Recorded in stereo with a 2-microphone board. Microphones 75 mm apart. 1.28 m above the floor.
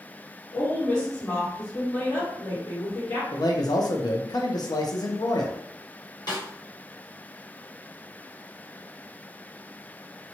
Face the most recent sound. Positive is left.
turn(degrees=70)  # may be behind; listen again after turning